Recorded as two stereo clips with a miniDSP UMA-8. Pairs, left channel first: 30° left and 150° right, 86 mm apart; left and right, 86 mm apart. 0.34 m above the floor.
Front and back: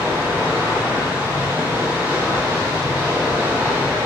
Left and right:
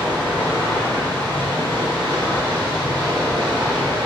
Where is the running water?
90° right, 2.5 m.